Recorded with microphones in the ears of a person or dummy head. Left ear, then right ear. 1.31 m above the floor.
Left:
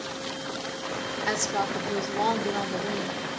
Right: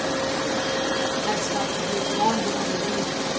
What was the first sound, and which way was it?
A woman speaking, 80° left.